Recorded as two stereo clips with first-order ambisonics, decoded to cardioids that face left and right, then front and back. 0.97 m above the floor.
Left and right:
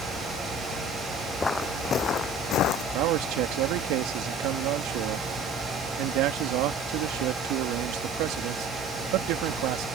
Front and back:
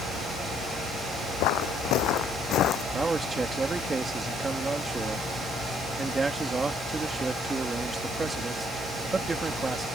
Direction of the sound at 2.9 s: 105° right.